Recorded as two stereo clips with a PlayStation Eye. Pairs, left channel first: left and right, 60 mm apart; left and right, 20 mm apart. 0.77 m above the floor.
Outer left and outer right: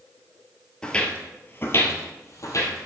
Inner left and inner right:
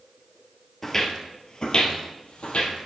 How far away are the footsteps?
About 1.0 m.